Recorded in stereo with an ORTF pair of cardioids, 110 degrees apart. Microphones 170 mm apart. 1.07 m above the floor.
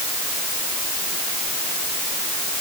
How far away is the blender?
I don't hear a blender.